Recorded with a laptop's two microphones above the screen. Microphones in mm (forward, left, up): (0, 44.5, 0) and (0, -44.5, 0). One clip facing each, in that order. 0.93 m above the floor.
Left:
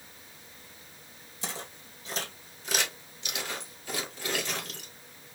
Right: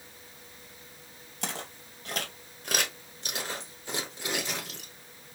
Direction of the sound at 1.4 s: 60° right (ahead or behind).